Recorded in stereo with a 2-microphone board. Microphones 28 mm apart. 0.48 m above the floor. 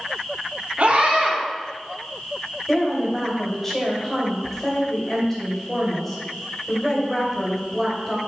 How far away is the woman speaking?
About 2.5 m.